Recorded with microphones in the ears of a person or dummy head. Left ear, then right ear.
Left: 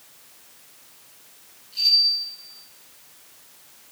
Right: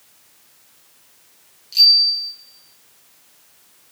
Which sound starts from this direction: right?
A bicycle bell, at 1.7 s.